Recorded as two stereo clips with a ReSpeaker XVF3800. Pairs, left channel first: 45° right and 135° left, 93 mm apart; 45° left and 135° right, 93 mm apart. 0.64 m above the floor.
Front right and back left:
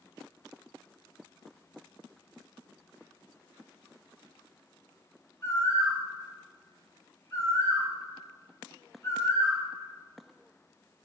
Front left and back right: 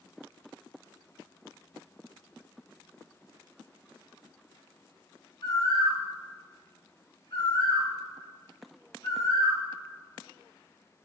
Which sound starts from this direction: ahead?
A bird, at 5.4 s.